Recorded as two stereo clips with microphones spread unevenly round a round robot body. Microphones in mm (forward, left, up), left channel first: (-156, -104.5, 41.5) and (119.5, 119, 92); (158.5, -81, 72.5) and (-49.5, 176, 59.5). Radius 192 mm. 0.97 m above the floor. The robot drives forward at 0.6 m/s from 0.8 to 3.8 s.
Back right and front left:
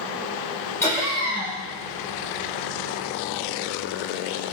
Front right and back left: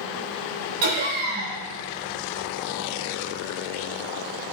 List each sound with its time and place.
0.8 s laughter: 135° left, 1.8 m; by 1.6 s 145° left, 2 m